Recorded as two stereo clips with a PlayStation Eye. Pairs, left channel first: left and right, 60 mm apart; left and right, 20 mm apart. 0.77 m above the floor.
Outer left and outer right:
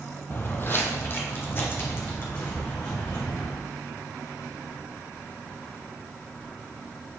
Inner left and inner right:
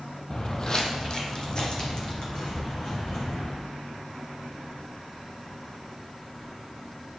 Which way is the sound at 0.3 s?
40° left (ahead or behind).